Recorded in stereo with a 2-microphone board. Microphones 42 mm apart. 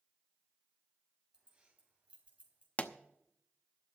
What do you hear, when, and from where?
1.3 s keys jangling: 25° right (ahead or behind), 3.5 m; by 2.7 s 35° right (ahead or behind), 3.5 m
2.8 s a pop: 35° left (ahead or behind), 0.8 m